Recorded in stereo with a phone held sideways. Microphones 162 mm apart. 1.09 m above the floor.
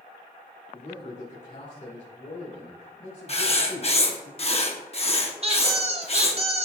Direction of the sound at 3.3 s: 40° left (ahead or behind).